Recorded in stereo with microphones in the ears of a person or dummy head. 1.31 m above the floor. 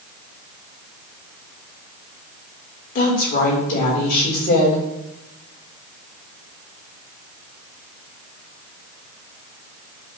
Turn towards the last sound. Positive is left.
turn(degrees=45)  # may be behind; listen again after turning